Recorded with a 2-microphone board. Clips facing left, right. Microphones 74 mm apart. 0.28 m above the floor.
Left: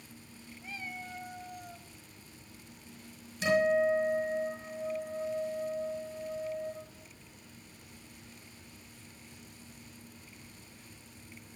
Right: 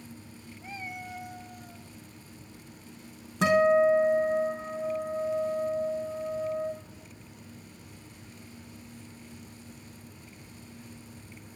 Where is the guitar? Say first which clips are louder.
Right 5 dB; 85° right, 3.5 m.